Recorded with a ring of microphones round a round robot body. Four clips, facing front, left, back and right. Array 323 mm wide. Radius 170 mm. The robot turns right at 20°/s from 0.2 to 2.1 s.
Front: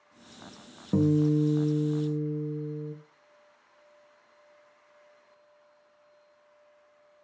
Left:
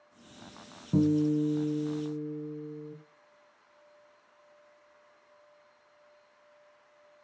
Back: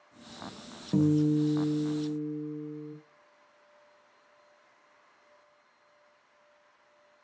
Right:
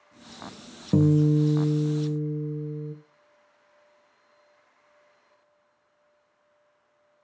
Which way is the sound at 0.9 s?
75° right.